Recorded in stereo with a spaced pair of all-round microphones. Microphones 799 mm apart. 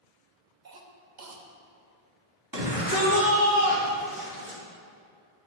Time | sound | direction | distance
0.7 | a cough | 65° right (ahead or behind) | 1.0 m
2.5 | a shout | 25° right (ahead or behind) | 2.5 m